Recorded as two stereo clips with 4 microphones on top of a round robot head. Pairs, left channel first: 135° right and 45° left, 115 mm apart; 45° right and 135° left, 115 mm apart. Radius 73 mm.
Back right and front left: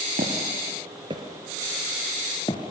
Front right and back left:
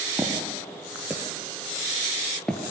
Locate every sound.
0.2 s footsteps: 60° left, 2.5 m; by 2.7 s 120° right, 1.7 m